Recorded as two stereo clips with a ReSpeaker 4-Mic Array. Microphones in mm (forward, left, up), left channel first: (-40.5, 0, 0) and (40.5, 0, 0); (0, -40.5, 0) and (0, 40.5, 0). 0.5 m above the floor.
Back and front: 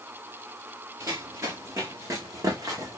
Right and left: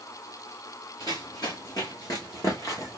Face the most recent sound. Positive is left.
turn(degrees=-40)